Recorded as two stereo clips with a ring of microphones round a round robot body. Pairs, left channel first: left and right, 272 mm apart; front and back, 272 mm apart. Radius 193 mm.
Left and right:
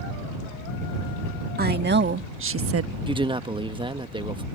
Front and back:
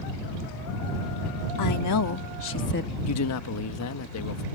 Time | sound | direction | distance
1.6 | a woman speaking | 35° right | ?
3.1 | a man speaking | 20° right | ?